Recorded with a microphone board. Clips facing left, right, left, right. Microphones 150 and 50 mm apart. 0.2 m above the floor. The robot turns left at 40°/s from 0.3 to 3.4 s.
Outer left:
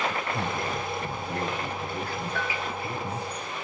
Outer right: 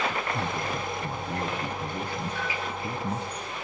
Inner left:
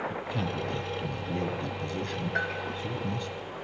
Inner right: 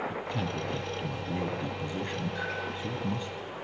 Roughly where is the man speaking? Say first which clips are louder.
Even, inner left 1 dB; centre.